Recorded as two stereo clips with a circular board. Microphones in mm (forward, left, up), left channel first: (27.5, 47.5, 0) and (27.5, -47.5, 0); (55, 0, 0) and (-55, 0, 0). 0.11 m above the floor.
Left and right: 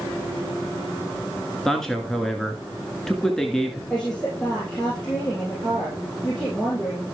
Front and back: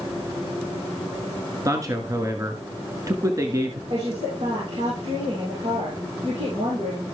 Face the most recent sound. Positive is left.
turn(degrees=175)